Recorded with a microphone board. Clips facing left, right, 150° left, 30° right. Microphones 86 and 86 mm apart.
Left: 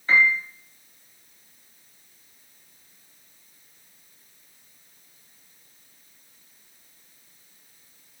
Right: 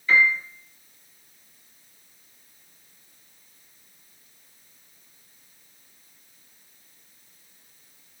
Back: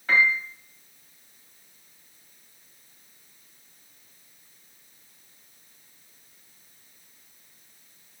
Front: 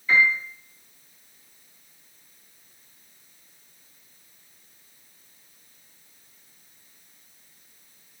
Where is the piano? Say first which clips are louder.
Even, front 1 dB; 135° left, 2.5 m.